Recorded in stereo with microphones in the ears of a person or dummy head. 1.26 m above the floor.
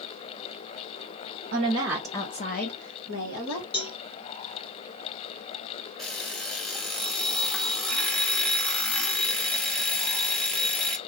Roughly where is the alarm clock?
Centre.